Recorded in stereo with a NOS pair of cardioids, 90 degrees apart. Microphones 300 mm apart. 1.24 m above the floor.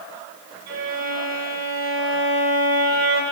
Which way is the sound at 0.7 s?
55° right.